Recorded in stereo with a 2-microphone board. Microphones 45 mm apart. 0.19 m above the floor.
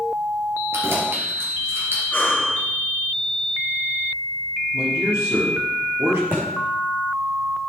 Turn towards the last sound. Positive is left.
turn(degrees=-50)  # may be behind; listen again after turning